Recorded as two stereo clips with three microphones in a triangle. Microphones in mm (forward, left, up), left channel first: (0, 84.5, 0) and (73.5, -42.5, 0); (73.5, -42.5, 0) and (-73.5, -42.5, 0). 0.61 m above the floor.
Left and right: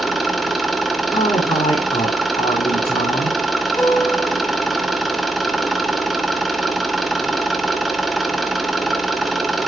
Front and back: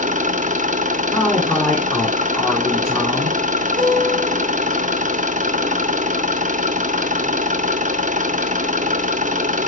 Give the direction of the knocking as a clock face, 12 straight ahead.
No knocking in this recording.